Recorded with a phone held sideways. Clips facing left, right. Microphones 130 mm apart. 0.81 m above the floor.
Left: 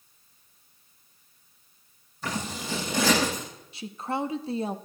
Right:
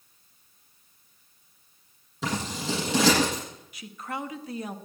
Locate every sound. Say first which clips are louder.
2.2 s scissors: right 3 dB; 80° right, 9.5 m
3.7 s a woman speaking: left 5 dB; 25° left (ahead or behind), 0.7 m